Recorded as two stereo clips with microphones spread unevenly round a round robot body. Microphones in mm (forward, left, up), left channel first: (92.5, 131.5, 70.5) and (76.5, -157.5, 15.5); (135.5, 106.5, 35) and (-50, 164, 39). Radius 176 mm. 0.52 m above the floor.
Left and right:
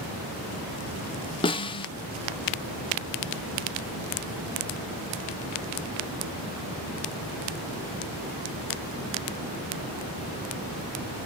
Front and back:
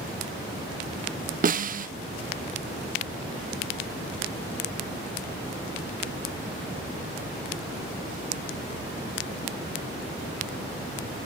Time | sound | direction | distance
1.4 | a snare drum | 165° left | 1.0 m